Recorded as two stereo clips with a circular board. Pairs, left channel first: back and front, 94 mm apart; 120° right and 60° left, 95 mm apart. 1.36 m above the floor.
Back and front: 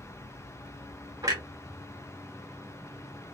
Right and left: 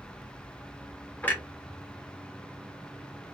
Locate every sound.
1.2 s a clunk: 50° right, 0.7 m